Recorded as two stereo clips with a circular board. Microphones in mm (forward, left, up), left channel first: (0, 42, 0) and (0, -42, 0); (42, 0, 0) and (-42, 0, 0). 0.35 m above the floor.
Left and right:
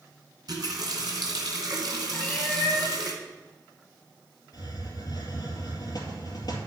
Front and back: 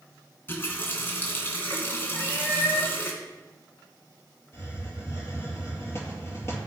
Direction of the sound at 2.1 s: 20° left.